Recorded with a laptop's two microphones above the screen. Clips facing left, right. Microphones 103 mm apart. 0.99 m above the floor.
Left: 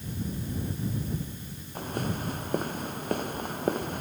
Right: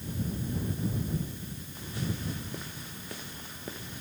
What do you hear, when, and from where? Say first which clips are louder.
1.8 s footsteps: left 5 dB; 50° left (ahead or behind); by 4.0 s 55° left (ahead or behind)